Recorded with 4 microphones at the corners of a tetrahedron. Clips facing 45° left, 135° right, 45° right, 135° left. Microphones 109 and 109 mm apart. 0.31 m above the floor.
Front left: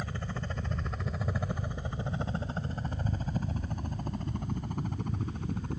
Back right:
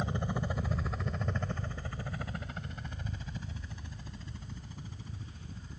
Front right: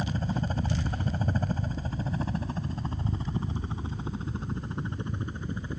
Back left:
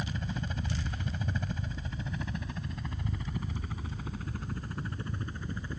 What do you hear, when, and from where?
0.0 s a helicopter: 75° right; by 5.8 s 25° left